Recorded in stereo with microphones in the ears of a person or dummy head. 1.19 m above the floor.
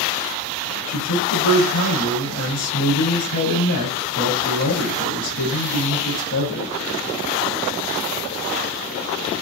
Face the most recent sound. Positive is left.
turn(degrees=80)